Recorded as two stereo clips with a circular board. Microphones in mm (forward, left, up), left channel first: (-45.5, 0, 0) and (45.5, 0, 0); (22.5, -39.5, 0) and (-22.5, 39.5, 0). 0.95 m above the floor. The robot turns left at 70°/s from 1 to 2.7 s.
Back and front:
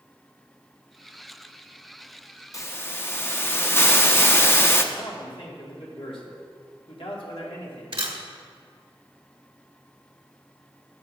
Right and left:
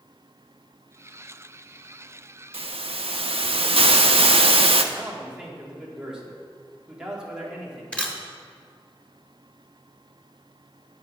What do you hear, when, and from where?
2.5 s a hiss: 125° left, 0.5 m; by 4.8 s 115° left, 0.5 m
4.9 s a man speaking: 160° right, 1.8 m
7.9 s a camera shutter: 20° left, 1.1 m